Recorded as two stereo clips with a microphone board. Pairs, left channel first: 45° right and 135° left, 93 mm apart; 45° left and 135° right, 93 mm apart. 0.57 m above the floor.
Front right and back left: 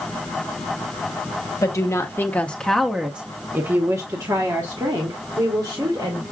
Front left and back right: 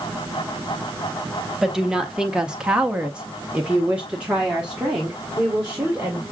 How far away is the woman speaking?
About 1.1 m.